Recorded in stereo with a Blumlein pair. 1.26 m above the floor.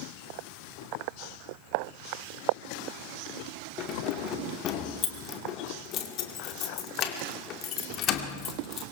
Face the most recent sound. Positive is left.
turn(degrees=35)